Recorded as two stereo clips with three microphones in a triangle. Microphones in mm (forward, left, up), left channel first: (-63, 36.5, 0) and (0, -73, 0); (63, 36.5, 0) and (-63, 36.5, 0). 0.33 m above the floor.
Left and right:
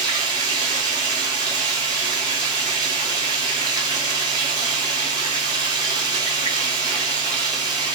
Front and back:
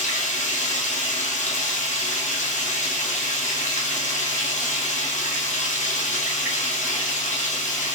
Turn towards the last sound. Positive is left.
turn(degrees=0)